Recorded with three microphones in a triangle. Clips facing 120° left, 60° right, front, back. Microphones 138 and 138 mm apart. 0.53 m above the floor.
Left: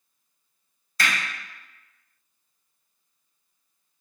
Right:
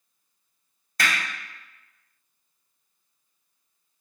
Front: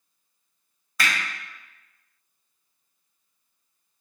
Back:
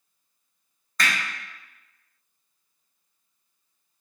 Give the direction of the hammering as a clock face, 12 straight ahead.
3 o'clock.